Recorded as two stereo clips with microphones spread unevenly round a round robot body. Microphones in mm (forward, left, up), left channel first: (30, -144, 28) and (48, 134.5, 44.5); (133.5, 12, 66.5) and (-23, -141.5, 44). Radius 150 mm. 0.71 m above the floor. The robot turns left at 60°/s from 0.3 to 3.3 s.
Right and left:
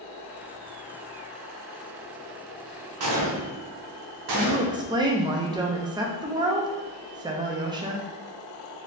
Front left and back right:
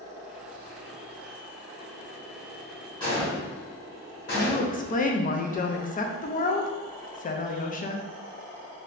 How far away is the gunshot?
About 0.7 m.